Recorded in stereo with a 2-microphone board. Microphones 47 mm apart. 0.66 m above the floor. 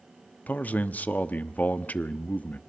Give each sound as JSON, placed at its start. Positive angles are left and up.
{"t": 0.5, "sound": "a man speaking", "side_deg": 35, "distance_m": 1.0}